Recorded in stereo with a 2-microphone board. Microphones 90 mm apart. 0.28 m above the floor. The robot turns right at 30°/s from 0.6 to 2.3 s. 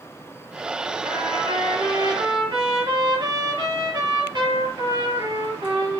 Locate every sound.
1.0 s a trumpet: 95° right, 5.5 m; by 6.0 s 55° right, 5.5 m